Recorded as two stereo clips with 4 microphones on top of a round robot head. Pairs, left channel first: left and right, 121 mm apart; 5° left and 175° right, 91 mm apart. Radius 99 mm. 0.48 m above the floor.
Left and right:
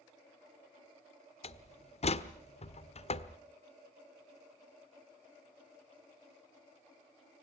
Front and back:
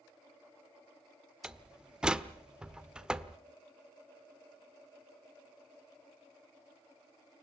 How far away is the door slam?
About 1.4 m.